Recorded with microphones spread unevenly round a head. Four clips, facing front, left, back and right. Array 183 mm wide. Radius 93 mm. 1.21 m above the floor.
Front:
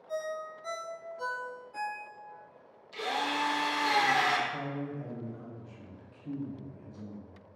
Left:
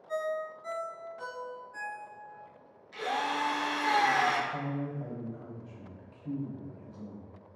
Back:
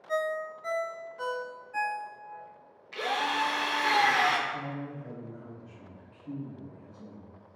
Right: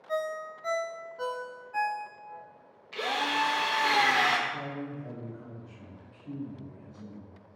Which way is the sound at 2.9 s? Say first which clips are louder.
Right 2 dB, back 2 dB; 125° right.